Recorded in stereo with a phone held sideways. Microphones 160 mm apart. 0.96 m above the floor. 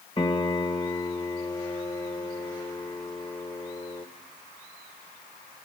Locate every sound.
0.2 s a piano: 30° left (ahead or behind), 0.9 m